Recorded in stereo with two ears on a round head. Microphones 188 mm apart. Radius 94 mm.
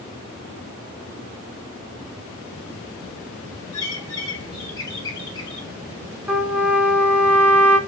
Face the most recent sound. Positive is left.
turn(degrees=-5)  # may be behind; listen again after turning